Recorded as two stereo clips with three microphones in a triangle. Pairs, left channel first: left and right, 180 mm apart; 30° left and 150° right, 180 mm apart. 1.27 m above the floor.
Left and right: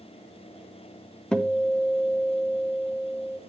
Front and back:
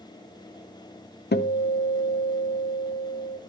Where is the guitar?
5° left, 0.7 m.